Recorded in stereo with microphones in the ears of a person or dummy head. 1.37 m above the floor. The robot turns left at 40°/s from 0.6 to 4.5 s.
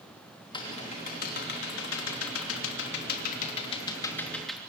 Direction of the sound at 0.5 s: 25° left (ahead or behind).